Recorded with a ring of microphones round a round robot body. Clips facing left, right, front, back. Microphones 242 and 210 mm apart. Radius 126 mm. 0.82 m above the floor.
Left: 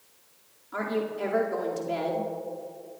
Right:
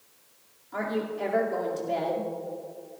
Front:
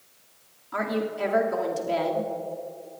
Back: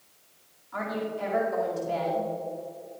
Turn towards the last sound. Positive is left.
turn(degrees=10)